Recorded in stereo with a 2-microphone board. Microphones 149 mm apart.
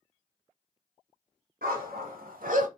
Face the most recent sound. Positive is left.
turn(degrees=-60)  # may be behind; listen again after turning